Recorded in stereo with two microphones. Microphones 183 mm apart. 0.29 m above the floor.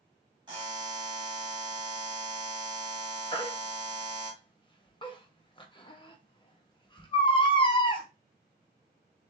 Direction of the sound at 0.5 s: 25° right (ahead or behind).